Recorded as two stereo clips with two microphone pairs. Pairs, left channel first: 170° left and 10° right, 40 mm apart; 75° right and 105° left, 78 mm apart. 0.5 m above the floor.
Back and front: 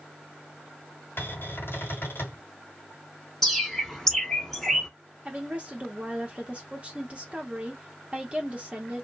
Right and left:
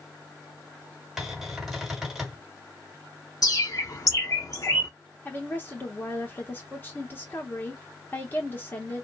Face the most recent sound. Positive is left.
turn(degrees=-35)